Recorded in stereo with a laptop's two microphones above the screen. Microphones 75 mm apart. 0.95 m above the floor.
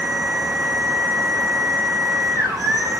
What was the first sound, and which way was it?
A machine running, 30° right (ahead or behind).